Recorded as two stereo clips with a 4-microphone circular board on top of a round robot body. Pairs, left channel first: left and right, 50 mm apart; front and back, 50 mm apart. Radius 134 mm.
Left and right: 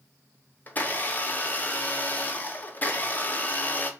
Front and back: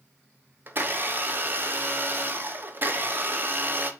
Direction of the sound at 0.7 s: 140° left.